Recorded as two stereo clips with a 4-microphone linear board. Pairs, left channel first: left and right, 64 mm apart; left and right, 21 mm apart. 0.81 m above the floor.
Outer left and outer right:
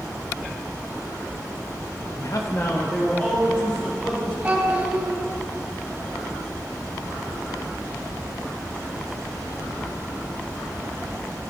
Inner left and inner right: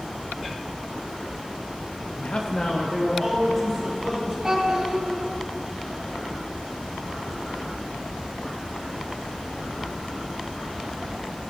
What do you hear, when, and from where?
2.2 s a man speaking: 50° left (ahead or behind), 0.5 m; by 4.3 s 10° left (ahead or behind), 2.5 m
4.4 s a child speaking: 20° right (ahead or behind), 1.9 m